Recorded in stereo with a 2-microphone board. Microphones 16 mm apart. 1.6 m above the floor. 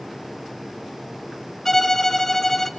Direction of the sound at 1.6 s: 25° left (ahead or behind).